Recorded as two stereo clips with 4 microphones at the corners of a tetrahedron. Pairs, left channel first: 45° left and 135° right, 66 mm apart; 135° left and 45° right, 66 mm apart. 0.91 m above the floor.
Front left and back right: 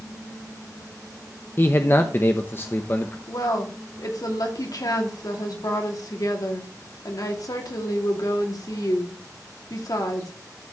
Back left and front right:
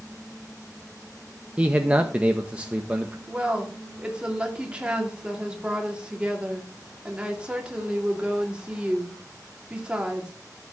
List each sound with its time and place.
1.6 s a man speaking: 15° left, 0.8 m
3.3 s a woman speaking: 30° left, 2.5 m